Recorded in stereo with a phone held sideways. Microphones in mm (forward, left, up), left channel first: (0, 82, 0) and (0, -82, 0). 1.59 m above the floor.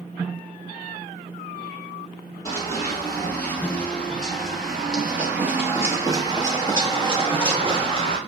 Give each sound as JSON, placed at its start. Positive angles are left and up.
{"t": 2.5, "sound": "running footsteps", "side_deg": 20, "distance_m": 2.5}